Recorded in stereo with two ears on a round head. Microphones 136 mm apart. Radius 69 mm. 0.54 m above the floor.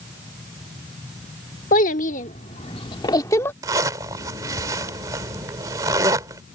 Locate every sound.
1.7 s a child speaking: 60° left (ahead or behind); by 3.5 s 15° left (ahead or behind)
3.6 s a zipper: 20° right (ahead or behind)